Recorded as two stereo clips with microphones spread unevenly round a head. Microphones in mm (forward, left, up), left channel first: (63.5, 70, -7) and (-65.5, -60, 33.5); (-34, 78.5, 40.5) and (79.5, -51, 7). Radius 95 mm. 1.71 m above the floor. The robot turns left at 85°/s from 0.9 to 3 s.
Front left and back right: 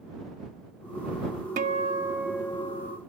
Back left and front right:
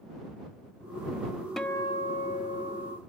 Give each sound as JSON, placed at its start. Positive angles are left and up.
{"t": 1.6, "sound": "a guitar", "azimuth_deg": -150}